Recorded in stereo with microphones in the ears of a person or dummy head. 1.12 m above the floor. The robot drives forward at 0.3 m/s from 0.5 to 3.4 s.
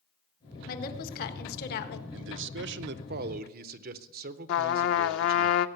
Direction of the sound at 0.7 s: 50° left (ahead or behind).